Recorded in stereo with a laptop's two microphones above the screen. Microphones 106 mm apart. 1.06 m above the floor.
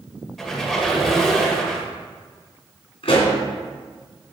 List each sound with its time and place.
0.4 s a squeak: centre (ahead or behind), 1.7 m
3.0 s a pop: 70° left (ahead or behind), 2.5 m